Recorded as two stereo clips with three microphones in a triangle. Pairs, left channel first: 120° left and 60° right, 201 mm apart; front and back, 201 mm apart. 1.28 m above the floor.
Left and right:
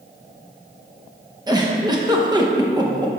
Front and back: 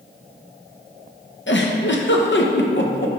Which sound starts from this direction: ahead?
A giggle, at 1.5 s.